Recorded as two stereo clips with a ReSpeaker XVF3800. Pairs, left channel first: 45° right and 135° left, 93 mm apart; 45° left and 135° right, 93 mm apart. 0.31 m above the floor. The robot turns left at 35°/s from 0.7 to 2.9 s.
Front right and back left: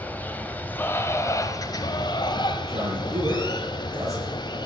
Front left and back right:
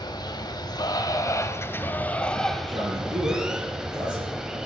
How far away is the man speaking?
About 8 m.